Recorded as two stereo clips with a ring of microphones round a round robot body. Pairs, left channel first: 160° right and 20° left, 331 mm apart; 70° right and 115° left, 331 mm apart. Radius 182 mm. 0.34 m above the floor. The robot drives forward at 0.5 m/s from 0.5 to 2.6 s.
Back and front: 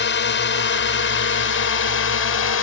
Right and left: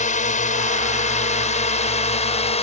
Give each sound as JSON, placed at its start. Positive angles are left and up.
{"t": 0.0, "sound": "a drone", "azimuth_deg": -125}